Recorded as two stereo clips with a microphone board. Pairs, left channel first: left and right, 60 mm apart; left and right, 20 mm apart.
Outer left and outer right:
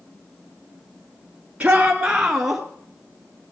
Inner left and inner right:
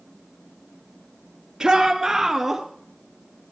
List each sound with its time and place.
1.6 s a shout: 20° right (ahead or behind), 1.4 m; by 2.6 s 5° right (ahead or behind), 1.6 m